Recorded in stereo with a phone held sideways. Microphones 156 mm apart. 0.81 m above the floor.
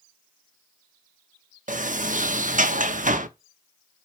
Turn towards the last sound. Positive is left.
turn(degrees=-55)  # may be behind; listen again after turning